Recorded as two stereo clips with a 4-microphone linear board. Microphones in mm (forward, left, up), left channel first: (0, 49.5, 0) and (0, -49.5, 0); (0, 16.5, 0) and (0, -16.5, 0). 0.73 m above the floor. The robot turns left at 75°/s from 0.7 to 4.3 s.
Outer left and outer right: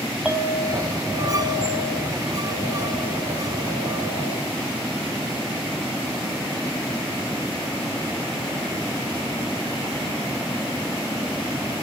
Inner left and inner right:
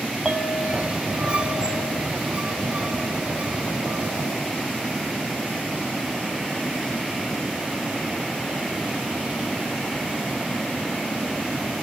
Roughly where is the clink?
Behind.